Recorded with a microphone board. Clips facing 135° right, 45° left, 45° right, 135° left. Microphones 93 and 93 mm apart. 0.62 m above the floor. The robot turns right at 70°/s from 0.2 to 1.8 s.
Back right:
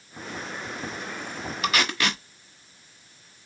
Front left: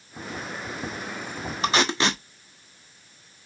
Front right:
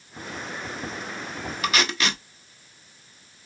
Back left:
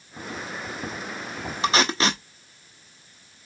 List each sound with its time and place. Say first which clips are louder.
1.6 s tape being pulled: front left 3 dB, back left 4 dB; 85° left, 0.8 m; by 2.2 s 95° left, 0.8 m